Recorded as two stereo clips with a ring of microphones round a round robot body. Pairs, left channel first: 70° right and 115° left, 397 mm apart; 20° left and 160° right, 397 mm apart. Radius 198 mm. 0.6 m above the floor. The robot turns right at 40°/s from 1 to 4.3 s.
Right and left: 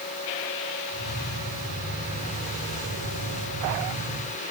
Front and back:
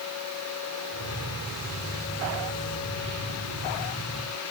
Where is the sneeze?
No sneeze in this recording.